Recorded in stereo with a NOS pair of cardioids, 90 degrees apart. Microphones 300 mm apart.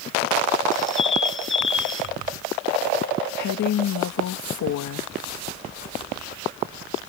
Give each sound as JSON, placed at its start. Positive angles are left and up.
{"t": 0.7, "sound": "a bird", "azimuth_deg": 40}
{"t": 3.4, "sound": "a woman speaking", "azimuth_deg": 70}